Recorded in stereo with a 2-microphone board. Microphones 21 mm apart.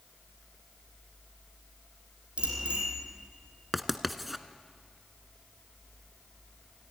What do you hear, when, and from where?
2.4 s a bicycle bell: 70° right (ahead or behind), 4.5 m
3.7 s writing: 5° right (ahead or behind), 0.8 m